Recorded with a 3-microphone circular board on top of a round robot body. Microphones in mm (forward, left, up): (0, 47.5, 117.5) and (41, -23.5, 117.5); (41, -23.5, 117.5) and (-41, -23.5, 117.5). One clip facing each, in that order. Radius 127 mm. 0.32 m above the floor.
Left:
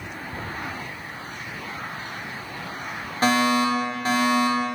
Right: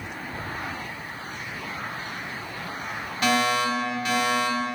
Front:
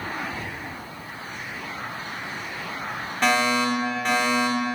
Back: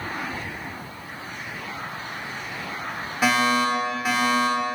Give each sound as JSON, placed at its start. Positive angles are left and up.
{"t": 0.3, "sound": "ticking", "azimuth_deg": 85, "distance_m": 2.5}
{"t": 3.2, "sound": "a fire alarm", "azimuth_deg": 100, "distance_m": 2.0}